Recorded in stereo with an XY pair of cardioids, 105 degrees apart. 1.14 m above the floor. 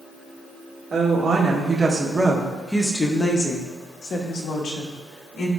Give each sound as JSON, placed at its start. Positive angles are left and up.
{"t": 0.9, "sound": "a woman speaking", "azimuth_deg": -55, "distance_m": 1.7}